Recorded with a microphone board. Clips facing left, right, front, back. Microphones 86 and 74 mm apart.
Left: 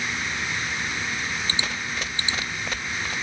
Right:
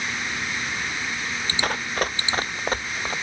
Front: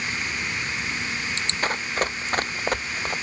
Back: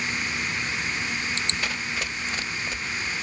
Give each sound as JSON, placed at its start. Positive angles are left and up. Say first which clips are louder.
{"t": 1.6, "sound": "running footsteps", "louder": "right 5 dB, front 4 dB", "azimuth_deg": -50}